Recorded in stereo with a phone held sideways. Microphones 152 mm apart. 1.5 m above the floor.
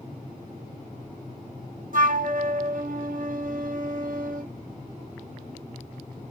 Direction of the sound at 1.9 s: 65° right (ahead or behind).